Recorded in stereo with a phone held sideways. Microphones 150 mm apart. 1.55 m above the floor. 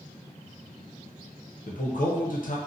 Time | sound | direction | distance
1.7 | a man speaking | 65° left (ahead or behind) | 0.7 m